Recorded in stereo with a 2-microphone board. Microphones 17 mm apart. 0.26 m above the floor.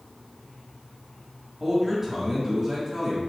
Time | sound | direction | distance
1.6 | a man speaking | 20° right (ahead or behind) | 1.5 m